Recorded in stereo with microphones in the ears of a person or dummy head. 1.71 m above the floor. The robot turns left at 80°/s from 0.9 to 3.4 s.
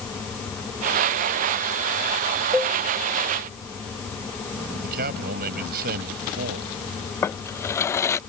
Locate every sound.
2.5 s a cowbell: 5° left (ahead or behind); by 2.8 s 15° left (ahead or behind)
4.8 s a man speaking: 50° right (ahead or behind)
7.2 s a drawer: 15° left (ahead or behind)